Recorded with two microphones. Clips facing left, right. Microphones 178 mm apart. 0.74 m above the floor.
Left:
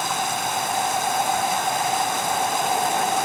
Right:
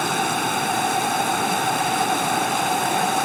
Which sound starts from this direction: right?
Running water, at 0.0 s.